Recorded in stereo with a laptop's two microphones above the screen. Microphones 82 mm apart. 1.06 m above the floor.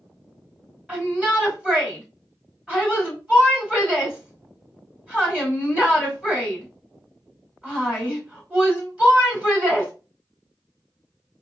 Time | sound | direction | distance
0.9 | a shout | 15° right (ahead or behind) | 2 m